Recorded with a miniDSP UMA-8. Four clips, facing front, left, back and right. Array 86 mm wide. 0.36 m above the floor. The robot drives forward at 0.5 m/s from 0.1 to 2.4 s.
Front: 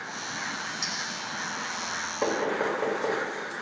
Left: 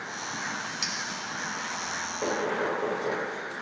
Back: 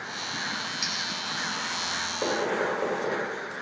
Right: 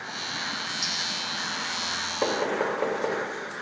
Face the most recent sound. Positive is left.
turn(degrees=-90)